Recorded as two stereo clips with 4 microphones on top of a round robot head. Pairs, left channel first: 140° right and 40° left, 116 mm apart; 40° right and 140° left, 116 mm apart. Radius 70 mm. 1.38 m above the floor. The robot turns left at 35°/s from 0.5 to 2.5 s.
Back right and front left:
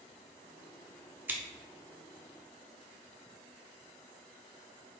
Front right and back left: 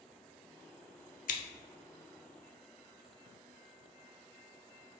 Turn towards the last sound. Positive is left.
turn(degrees=-80)